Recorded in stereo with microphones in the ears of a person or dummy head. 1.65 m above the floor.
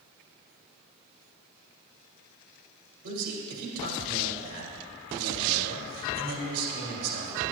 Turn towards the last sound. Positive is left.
turn(degrees=-80)